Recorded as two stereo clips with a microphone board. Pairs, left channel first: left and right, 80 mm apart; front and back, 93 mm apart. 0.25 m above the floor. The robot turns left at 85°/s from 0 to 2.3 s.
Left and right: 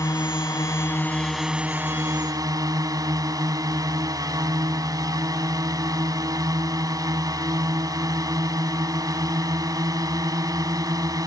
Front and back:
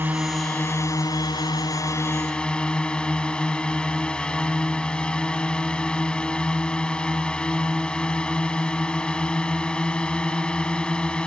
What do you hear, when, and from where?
0.0 s a drone: 120° left; by 11.3 s 75° right